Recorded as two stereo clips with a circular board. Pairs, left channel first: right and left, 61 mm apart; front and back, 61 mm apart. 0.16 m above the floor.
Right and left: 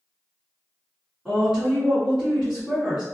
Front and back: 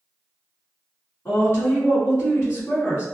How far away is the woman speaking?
About 1.7 m.